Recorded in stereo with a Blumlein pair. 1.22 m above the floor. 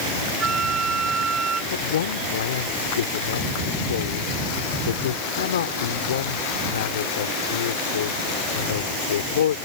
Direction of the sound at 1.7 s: 60° left.